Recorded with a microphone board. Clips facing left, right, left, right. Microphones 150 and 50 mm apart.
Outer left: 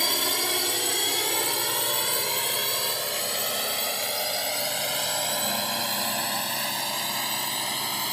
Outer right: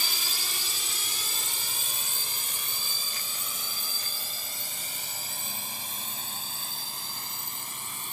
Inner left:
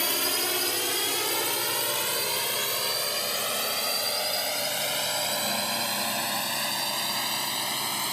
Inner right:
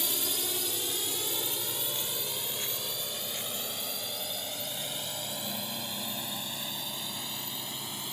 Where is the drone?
65° left (ahead or behind); by 8.1 s 75° left (ahead or behind).